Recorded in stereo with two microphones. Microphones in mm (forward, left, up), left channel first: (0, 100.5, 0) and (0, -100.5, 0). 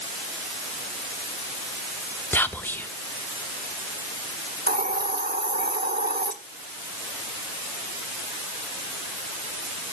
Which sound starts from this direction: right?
A hiss, at 4.7 s.